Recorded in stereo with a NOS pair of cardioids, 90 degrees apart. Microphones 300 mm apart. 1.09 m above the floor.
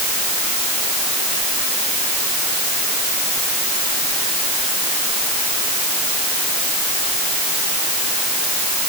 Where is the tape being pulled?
I don't hear tape being pulled.